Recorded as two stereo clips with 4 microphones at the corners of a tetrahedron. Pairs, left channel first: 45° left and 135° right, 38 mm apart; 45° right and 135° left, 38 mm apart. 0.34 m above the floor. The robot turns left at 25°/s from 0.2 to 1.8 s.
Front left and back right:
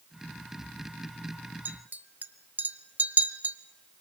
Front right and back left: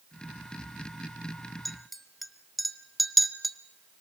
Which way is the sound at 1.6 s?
130° right.